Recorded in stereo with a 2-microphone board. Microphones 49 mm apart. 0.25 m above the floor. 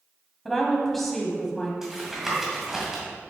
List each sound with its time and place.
0.5 s a woman speaking: 5° left (ahead or behind), 1.4 m
1.8 s tapping: 10° right (ahead or behind), 1.9 m